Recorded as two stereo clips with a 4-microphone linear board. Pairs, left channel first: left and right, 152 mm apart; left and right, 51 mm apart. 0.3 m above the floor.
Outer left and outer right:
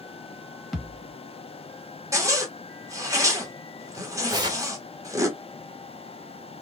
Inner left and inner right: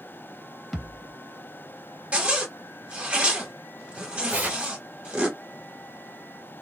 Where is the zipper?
20° right (ahead or behind), 0.9 m.